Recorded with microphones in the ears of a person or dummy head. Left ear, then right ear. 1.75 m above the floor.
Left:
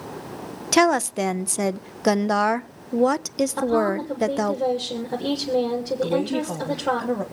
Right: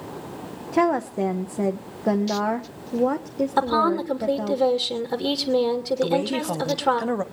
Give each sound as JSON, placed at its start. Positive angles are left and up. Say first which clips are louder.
{"t": 0.7, "sound": "a woman speaking", "louder": "left 3 dB", "side_deg": 60, "distance_m": 0.6}
{"t": 3.6, "sound": "a woman speaking", "louder": "right 3 dB", "side_deg": -45, "distance_m": 2.0}
{"t": 6.0, "sound": "a woman speaking", "louder": "even", "side_deg": -80, "distance_m": 1.7}